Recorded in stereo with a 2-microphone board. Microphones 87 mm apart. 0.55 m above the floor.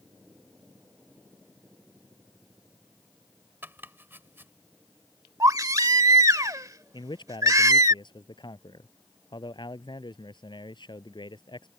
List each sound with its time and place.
3.6 s chopping: 25° right (ahead or behind)
5.4 s a baby crying: 45° right (ahead or behind)
6.9 s a man speaking: 60° left (ahead or behind)